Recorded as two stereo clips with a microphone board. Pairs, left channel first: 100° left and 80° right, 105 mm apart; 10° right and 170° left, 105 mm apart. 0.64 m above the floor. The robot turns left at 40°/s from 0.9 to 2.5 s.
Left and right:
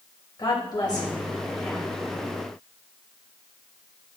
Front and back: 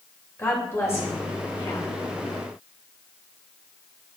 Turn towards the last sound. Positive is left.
turn(degrees=-10)